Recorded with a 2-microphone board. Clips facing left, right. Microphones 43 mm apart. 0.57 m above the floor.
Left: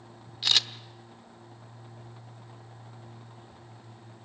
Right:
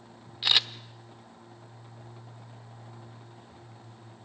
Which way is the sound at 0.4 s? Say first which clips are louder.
Right 1 dB; 15° right (ahead or behind).